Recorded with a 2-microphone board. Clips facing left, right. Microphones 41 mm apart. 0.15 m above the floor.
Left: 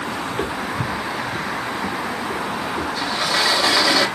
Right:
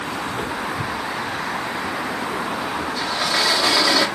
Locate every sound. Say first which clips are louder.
0.3 s footsteps: left 1 dB; 10° left (ahead or behind), 0.8 m; by 2.9 s 55° left (ahead or behind), 3.5 m
3.0 s a sliding door: left 1 dB; 5° left (ahead or behind), 1.3 m